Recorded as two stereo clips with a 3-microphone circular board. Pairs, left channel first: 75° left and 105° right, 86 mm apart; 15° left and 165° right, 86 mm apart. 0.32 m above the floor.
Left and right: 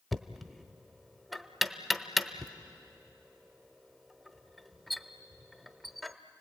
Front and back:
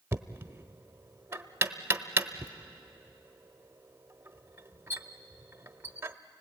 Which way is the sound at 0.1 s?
165° left.